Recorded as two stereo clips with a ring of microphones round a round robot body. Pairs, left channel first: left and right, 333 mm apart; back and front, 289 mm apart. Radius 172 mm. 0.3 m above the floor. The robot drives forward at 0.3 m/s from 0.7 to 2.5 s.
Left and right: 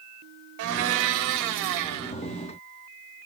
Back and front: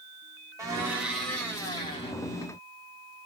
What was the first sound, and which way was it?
A blender, 80° right.